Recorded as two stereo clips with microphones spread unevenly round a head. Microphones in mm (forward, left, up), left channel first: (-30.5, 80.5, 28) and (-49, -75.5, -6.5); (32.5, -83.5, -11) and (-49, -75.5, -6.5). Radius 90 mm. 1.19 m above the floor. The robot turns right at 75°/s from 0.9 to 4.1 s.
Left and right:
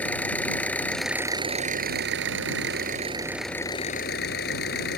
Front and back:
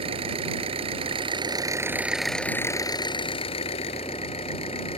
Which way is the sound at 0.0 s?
165° left.